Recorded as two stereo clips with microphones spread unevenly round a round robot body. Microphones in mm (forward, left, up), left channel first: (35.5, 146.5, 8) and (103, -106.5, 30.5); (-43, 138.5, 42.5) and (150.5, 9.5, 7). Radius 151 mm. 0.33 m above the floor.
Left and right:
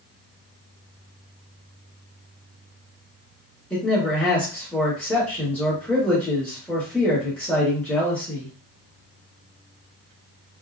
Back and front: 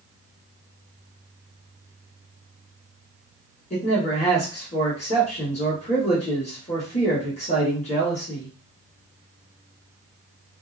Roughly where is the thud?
No thud in this recording.